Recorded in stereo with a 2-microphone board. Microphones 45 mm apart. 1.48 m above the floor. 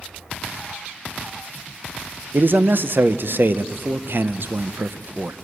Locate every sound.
2.3 s a man speaking: 55° right (ahead or behind), 0.7 m